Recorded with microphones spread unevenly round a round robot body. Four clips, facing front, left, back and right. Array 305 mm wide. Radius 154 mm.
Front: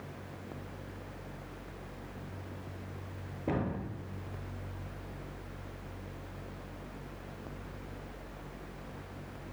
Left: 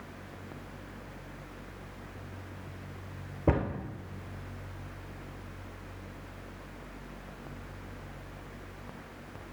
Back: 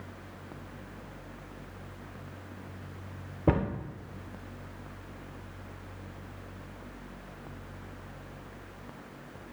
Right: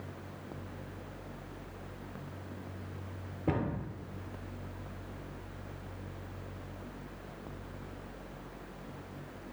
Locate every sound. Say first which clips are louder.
3.5 s a cupboard door: left 4 dB, back 6 dB; 150° left, 0.6 m